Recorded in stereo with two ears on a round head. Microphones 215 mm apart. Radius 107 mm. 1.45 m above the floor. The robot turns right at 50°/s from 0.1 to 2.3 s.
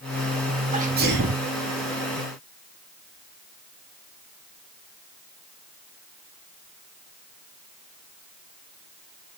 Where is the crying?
No crying in this recording.